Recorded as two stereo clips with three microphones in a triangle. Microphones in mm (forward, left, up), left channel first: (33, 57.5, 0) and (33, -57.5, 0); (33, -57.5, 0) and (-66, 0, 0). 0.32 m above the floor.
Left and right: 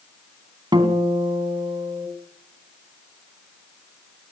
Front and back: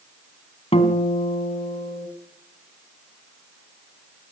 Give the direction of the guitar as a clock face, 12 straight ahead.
1 o'clock.